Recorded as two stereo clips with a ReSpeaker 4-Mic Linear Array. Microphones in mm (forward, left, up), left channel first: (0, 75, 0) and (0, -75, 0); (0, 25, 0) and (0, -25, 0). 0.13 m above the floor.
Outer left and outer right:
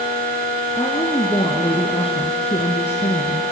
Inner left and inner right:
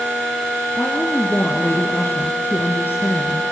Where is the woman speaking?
25° left (ahead or behind), 2 m; by 3.4 s 45° left (ahead or behind), 1.8 m.